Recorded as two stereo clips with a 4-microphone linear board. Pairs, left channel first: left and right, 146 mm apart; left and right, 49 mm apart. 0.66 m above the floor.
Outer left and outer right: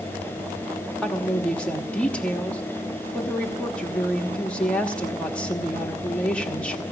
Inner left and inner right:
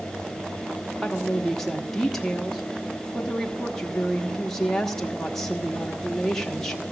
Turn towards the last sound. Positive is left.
turn(degrees=5)  # may be behind; listen again after turning